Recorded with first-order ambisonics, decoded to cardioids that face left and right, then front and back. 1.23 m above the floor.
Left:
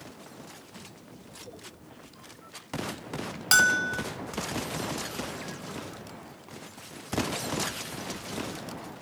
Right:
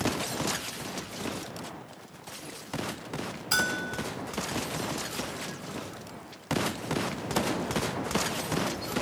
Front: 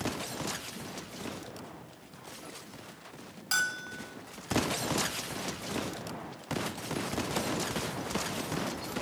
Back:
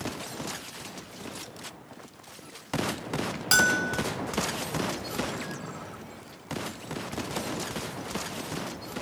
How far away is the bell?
About 1.9 m.